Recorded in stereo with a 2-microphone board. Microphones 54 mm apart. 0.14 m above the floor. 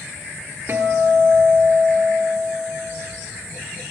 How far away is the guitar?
About 0.9 m.